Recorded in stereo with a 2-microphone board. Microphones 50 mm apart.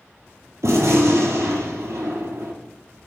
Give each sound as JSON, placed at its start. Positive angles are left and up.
{"t": 0.6, "sound": "a gunshot", "side_deg": -75, "distance_m": 0.8}